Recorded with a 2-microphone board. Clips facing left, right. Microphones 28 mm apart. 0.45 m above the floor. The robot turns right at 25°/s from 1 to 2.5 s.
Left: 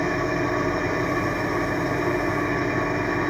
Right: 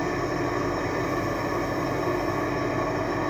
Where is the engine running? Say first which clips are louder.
Left 3 dB; 50° left, 2.5 m; by 3.3 s 85° left, 2.5 m.